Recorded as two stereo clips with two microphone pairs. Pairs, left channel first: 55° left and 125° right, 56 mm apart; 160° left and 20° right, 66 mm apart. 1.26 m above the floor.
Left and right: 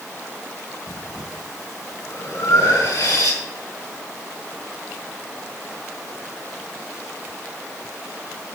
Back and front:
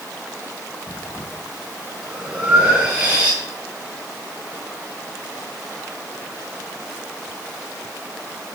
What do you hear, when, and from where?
0.9 s breathing: 55° left, 4.5 m